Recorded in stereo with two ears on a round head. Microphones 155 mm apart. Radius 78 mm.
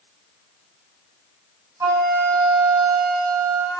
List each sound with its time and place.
1.8 s a flute: 15° right (ahead or behind), 5.5 m